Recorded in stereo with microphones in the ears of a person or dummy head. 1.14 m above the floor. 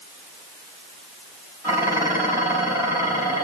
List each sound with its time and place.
1.6 s dishes clattering: 15° right (ahead or behind), 5 m